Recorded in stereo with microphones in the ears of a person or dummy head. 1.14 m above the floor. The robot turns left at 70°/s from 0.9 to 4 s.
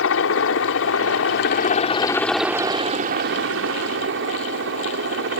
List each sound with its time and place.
0.0 s a helicopter: 105° left; by 5.4 s 115° right